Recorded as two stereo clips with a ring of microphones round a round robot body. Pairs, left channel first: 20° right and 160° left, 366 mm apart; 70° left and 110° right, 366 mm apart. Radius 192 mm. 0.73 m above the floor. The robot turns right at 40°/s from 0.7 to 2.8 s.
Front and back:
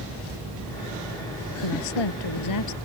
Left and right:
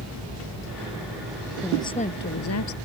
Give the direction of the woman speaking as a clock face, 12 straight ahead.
1 o'clock.